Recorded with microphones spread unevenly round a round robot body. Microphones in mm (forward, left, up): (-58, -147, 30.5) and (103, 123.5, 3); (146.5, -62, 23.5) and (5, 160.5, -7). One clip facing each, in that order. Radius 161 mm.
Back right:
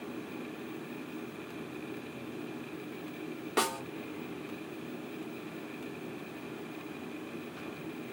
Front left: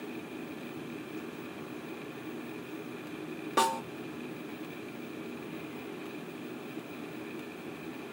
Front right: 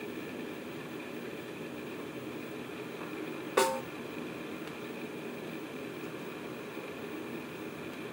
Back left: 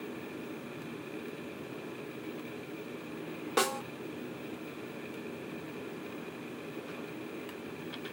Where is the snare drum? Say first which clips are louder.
Front left 1 dB, front right 3 dB; 160° left, 1.5 m.